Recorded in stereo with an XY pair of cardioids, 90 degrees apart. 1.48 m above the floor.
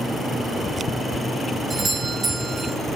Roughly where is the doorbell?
Ahead right.